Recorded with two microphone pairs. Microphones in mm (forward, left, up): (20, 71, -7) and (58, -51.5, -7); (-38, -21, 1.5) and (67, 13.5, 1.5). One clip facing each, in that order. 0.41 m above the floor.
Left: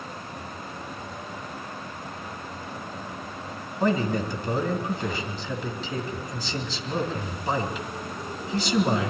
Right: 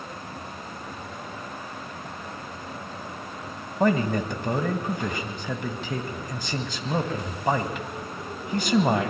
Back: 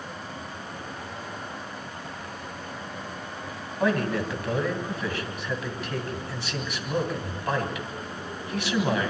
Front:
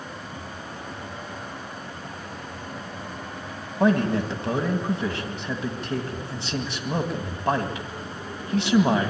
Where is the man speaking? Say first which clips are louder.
Right 2 dB, front 4 dB; 40° right, 2 m.